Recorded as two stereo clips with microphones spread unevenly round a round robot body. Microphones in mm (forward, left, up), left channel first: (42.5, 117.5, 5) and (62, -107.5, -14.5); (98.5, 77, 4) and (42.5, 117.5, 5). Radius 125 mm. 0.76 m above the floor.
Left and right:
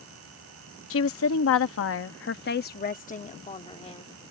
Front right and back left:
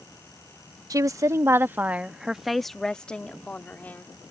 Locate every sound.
0.9 s a woman speaking: 125° left; by 4.0 s 25° left